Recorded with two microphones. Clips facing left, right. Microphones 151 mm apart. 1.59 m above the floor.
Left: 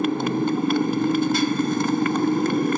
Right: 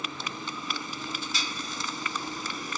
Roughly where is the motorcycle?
Left.